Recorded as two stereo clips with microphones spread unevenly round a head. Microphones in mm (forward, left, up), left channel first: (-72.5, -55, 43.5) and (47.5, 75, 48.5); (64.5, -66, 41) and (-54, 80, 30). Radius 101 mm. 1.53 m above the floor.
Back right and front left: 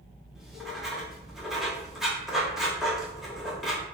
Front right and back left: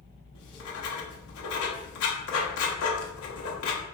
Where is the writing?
40° right, 0.6 m.